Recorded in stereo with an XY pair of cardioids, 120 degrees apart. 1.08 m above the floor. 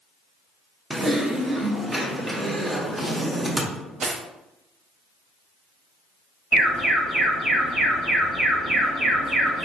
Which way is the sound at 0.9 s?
20° right.